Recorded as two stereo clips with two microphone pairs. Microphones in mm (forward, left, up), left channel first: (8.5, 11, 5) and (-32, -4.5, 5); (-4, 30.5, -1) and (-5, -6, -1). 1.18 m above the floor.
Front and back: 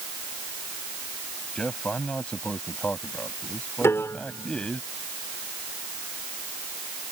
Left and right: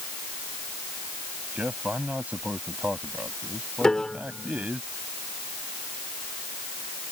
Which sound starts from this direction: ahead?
A piano, at 3.8 s.